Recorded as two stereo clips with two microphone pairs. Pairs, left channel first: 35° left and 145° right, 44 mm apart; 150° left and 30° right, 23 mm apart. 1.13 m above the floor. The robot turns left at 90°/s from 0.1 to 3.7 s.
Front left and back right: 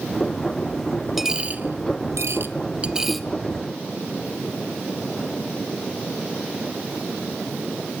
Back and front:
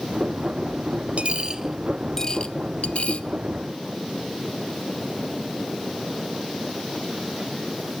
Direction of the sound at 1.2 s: 55° right.